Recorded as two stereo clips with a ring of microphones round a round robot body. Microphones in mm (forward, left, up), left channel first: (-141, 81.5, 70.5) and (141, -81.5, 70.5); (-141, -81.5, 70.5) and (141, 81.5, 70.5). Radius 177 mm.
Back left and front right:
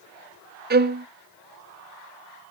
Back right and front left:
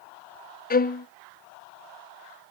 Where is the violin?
90° right, 0.9 m.